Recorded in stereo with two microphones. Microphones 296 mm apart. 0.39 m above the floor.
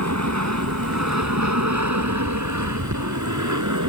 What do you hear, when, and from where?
0.0 s an aircraft: 60° right (ahead or behind); by 3.9 s 75° right (ahead or behind)